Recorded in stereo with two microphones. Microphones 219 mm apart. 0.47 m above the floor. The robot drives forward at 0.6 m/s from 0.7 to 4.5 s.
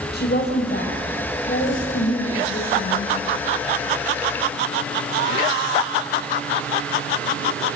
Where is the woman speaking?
50° left (ahead or behind), 2.5 m; by 3.1 s 35° left (ahead or behind), 3.5 m.